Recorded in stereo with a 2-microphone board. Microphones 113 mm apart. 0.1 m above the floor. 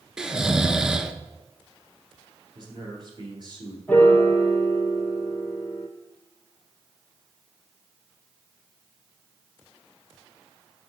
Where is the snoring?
5° right (ahead or behind), 0.5 m.